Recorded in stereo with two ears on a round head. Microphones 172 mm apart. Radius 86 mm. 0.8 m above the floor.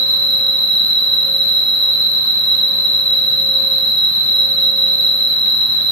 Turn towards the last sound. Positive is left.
turn(degrees=0)  # may be behind; listen again after turning